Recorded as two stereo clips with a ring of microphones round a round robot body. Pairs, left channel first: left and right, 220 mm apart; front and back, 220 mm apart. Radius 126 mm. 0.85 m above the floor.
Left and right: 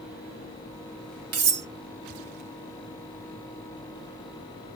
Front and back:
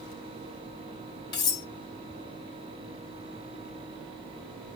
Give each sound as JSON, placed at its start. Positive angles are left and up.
{"t": 1.3, "sound": "cutlery clinking", "azimuth_deg": -75, "distance_m": 1.1}